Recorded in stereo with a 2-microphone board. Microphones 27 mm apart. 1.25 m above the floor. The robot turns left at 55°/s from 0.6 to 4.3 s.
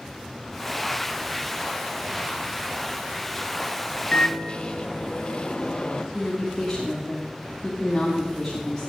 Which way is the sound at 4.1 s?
45° left (ahead or behind).